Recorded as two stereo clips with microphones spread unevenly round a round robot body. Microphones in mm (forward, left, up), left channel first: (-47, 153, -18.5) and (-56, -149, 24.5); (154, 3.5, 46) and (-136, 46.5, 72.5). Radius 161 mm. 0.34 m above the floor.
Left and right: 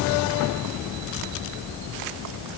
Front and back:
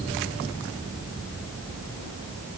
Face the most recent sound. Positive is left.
No sound to turn to.